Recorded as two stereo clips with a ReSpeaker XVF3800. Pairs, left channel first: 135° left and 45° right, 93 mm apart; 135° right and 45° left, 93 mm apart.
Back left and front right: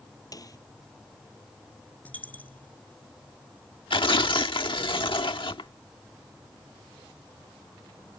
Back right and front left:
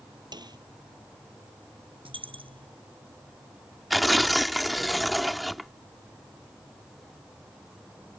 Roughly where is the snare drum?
Left.